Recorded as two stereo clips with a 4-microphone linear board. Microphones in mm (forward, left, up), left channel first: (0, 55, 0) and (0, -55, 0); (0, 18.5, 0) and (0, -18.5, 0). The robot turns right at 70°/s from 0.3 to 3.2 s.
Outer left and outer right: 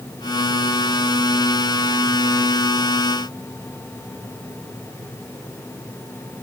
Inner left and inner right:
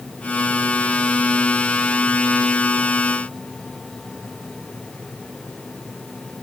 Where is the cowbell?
No cowbell in this recording.